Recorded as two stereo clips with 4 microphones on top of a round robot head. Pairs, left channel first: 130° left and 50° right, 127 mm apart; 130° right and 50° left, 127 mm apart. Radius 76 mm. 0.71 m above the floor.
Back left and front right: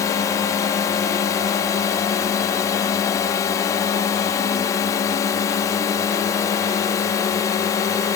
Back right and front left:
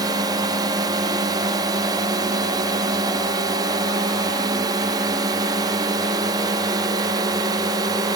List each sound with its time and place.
0.0 s a drone: 85° left